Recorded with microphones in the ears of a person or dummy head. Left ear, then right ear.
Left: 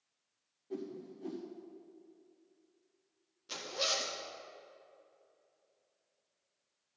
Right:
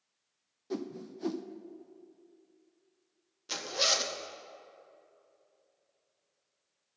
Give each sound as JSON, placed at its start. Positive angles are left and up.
{"t": 0.7, "sound": "a whoosh", "side_deg": -60, "distance_m": 0.6}
{"t": 3.5, "sound": "a zipper", "side_deg": -20, "distance_m": 0.6}